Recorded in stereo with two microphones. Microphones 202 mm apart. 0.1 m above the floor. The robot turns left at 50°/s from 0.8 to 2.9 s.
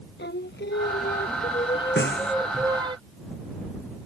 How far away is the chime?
No chime in this recording.